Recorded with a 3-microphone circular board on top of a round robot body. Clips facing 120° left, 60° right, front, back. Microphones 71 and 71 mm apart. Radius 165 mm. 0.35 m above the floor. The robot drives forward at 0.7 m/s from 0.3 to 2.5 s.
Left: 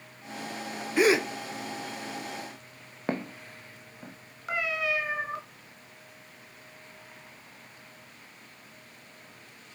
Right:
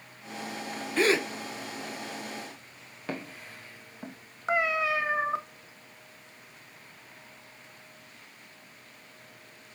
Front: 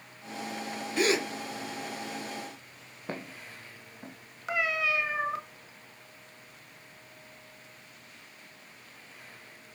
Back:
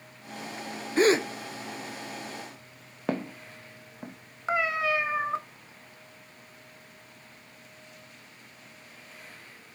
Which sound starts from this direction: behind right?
A cat meowing, at 4.5 s.